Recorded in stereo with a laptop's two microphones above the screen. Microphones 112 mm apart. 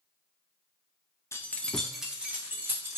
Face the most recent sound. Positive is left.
turn(degrees=-20)  # may be behind; listen again after turning